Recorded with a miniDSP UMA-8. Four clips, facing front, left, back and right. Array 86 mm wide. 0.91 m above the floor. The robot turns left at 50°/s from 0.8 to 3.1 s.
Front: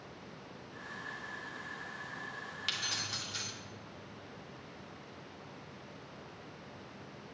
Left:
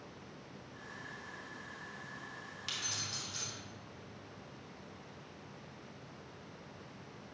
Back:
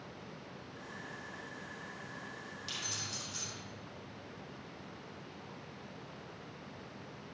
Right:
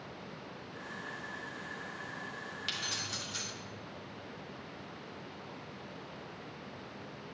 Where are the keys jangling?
20° right, 1.9 m; by 3.5 s 40° right, 1.9 m.